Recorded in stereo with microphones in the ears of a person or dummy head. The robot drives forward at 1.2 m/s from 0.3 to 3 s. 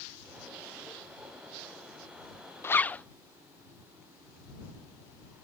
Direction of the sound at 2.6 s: 10° left (ahead or behind).